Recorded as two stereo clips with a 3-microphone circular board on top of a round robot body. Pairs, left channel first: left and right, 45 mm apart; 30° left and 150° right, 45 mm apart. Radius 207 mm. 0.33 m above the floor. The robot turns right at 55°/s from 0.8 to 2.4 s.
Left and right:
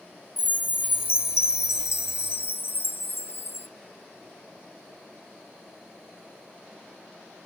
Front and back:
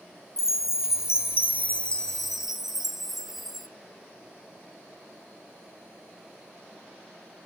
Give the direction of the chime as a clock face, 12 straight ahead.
11 o'clock.